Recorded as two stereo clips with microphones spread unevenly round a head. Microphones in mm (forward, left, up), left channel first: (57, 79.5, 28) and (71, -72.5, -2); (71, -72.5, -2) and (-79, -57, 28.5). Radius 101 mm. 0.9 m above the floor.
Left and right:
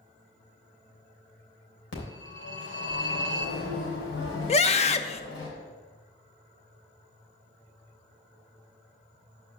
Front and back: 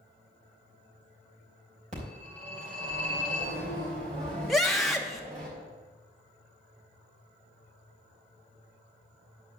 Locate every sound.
1.9 s a phone ringing: 115° left, 3 m
4.5 s a scream: 65° left, 1.0 m